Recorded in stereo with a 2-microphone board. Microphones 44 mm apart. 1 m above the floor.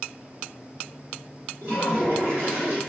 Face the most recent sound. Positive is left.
turn(degrees=-40)  # may be behind; listen again after turning